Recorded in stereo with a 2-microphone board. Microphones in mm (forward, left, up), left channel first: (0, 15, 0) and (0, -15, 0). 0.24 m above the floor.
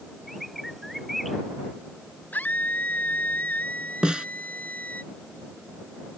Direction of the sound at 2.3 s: 75° left (ahead or behind).